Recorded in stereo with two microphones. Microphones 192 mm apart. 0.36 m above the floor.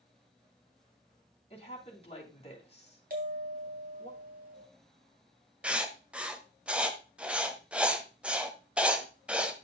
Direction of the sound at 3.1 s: 50° right (ahead or behind).